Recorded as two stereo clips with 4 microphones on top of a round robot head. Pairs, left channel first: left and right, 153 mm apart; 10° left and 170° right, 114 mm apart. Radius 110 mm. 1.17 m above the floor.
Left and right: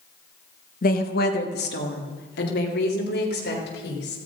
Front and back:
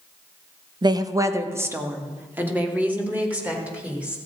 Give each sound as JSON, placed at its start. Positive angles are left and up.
{"t": 0.8, "sound": "a woman speaking", "azimuth_deg": 135, "distance_m": 1.0}